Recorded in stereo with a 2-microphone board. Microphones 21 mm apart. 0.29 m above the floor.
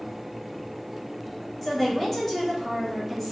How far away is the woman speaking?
About 0.9 m.